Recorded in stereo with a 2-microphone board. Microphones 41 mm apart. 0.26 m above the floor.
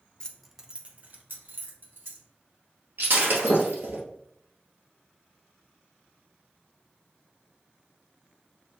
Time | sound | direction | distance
0.2 | keys jangling | 25° left (ahead or behind) | 0.7 m
3.0 | breaking glass | 60° right (ahead or behind) | 1.6 m